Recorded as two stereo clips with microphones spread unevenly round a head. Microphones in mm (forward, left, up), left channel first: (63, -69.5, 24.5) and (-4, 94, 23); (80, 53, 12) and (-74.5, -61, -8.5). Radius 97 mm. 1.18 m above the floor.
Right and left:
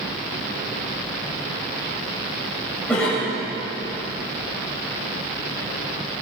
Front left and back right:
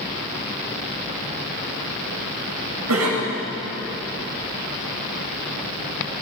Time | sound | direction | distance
2.9 | a cough | 155° right | 7 m